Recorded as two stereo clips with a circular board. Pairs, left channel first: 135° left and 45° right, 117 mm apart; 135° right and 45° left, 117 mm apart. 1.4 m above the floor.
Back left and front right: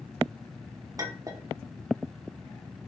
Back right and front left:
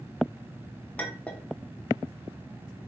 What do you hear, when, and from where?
1.0 s a clink: 65° right, 0.6 m